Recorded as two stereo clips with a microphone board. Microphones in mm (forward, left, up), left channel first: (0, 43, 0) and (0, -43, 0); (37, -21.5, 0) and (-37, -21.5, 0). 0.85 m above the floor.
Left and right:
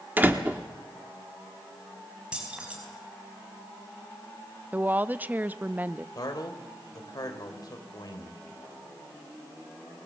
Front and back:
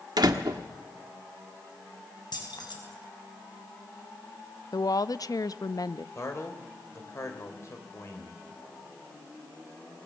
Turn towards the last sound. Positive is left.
turn(degrees=50)